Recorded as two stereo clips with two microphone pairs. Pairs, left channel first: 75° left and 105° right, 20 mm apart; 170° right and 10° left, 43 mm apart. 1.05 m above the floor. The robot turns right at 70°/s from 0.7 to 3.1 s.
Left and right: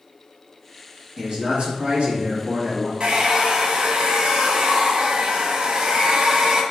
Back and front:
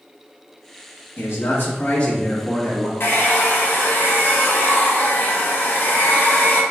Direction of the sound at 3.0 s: 135° right.